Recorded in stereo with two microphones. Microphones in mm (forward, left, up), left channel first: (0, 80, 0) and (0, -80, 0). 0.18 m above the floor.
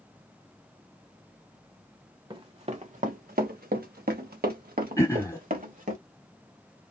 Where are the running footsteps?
30° right (ahead or behind), 0.9 m; by 6.0 s 60° right (ahead or behind), 1.8 m.